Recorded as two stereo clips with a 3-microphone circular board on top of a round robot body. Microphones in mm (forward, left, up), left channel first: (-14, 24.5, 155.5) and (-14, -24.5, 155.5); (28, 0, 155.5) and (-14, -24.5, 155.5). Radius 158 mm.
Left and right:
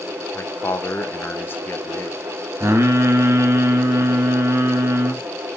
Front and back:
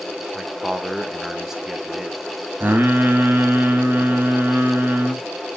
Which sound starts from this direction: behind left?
A man speaking, at 0.3 s.